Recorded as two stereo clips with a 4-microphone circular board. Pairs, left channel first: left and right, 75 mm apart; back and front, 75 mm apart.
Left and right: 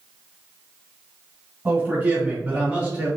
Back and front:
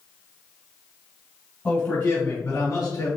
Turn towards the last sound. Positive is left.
turn(degrees=-160)